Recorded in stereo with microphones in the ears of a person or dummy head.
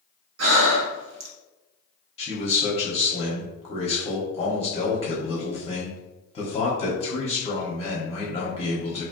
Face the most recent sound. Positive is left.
turn(degrees=25)  # may be behind; listen again after turning